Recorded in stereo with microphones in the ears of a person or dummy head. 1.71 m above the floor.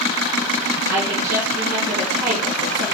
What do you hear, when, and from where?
0.9 s a woman speaking: 55° right (ahead or behind), 0.9 m